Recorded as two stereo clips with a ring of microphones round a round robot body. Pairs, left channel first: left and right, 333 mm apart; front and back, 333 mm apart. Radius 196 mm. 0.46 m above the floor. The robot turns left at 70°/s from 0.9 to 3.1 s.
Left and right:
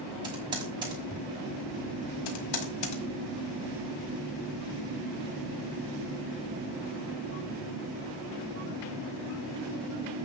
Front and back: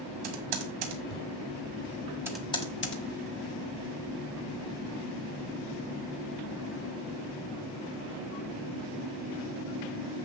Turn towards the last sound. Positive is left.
turn(degrees=40)